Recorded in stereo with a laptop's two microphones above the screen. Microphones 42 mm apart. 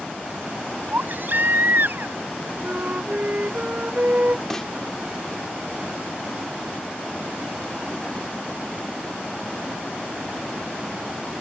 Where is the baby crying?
55° right (ahead or behind).